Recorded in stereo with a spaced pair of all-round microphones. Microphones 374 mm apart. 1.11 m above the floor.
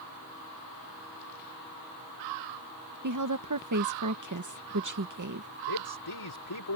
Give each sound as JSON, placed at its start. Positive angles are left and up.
{"t": 3.0, "sound": "a woman speaking", "side_deg": -50}
{"t": 5.7, "sound": "a man speaking", "side_deg": 80}